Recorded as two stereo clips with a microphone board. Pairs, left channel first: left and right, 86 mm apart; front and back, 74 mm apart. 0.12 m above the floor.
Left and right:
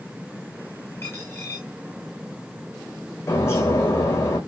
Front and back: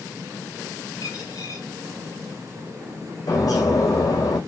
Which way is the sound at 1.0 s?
35° left.